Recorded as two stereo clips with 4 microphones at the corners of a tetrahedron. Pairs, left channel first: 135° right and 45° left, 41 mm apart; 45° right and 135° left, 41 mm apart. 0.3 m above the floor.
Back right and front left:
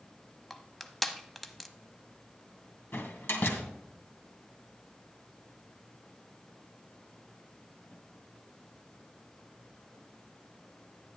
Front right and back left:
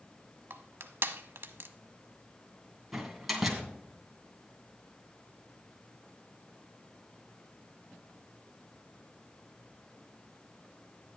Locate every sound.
0.5 s crushing: 140° left, 0.8 m
2.9 s a door slam: 135° right, 2 m